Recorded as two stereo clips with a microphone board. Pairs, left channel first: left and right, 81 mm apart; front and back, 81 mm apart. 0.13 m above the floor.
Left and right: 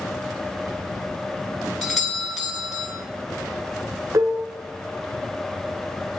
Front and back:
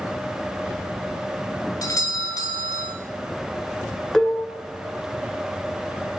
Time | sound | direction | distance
1.8 | a doorbell | straight ahead | 2 m
4.1 | dishes clattering | 75° right | 1.1 m